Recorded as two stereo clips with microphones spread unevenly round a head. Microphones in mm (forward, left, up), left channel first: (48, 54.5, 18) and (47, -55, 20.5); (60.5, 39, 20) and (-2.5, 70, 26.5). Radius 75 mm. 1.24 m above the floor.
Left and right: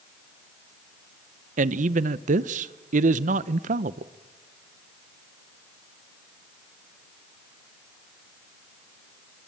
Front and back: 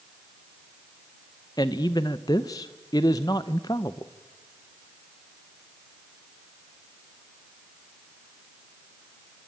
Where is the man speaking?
90° right, 0.7 m.